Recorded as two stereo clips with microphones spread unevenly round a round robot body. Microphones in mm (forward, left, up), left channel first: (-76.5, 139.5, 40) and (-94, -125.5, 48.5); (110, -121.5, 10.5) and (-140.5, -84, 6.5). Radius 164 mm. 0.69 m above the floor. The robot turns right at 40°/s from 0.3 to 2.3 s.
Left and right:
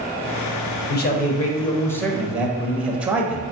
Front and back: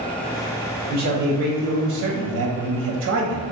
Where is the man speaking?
125° left, 0.6 m; by 3.4 s straight behind, 0.6 m.